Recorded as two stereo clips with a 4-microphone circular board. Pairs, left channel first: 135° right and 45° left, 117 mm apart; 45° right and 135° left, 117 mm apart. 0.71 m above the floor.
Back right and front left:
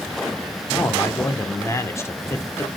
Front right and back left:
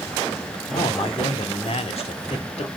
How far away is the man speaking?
About 1.6 m.